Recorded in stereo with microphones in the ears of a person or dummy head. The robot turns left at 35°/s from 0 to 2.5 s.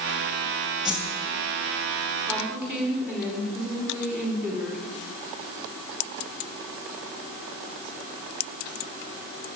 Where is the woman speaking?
5° left (ahead or behind), 5 m; by 4.8 s 5° right (ahead or behind), 5 m.